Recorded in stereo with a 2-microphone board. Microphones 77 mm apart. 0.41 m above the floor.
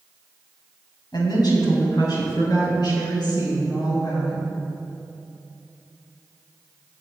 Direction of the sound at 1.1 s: 65° left (ahead or behind).